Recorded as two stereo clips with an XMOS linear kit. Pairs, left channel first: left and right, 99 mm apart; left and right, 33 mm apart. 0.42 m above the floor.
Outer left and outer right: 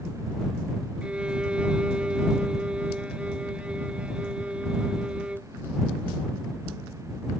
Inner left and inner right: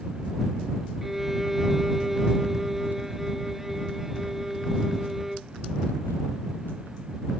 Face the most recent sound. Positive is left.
turn(degrees=-10)  # may be behind; listen again after turning